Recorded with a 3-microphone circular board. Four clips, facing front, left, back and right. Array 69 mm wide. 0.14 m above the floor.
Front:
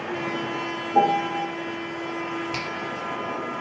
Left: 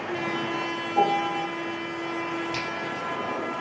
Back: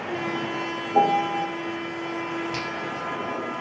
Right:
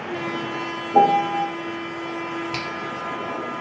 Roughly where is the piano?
Right.